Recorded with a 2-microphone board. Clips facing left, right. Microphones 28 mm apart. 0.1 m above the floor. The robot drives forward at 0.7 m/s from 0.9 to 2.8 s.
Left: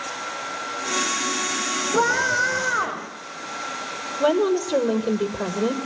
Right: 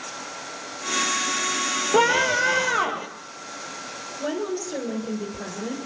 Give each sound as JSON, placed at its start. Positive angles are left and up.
{"t": 1.9, "sound": "a scream", "side_deg": -55, "distance_m": 3.0}
{"t": 4.2, "sound": "a woman speaking", "side_deg": 55, "distance_m": 2.5}